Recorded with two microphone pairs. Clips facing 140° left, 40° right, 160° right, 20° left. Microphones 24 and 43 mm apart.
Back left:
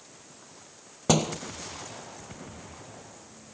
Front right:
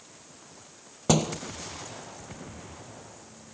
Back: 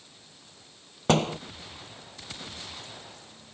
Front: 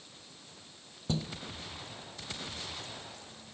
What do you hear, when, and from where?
1.1 s a door slam: 140° right